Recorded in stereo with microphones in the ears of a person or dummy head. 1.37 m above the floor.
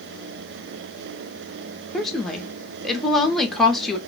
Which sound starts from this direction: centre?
A woman speaking, at 1.9 s.